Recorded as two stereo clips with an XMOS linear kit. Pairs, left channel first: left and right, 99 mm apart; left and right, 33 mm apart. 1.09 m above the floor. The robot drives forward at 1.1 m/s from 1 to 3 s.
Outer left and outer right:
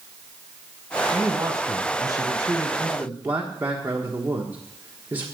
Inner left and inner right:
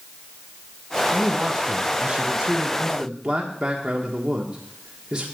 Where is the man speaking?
20° right (ahead or behind), 1.2 m.